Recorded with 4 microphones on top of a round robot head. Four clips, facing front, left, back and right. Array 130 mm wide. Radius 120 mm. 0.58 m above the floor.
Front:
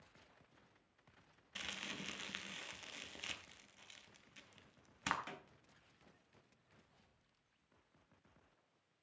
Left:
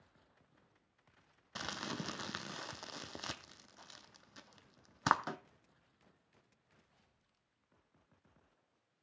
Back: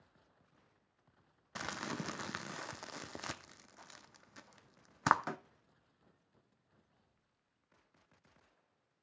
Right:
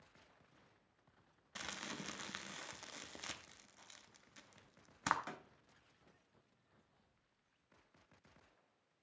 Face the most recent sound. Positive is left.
turn(degrees=150)